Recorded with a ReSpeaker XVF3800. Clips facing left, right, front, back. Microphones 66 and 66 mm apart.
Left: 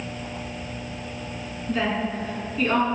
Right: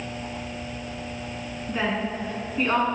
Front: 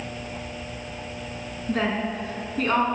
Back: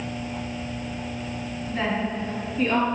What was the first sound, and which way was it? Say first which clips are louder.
A woman speaking: left 2 dB, front 1 dB; 20° right.